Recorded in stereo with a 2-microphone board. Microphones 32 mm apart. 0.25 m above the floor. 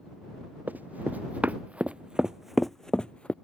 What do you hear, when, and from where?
0.7 s running footsteps: 65° right (ahead or behind); by 3.4 s 40° left (ahead or behind)